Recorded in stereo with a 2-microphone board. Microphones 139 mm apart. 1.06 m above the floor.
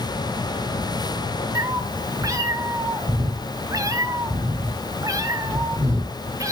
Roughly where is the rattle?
I don't hear a rattle.